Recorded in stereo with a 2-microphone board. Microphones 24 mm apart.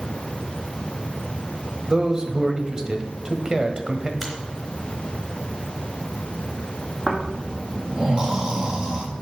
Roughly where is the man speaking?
Right.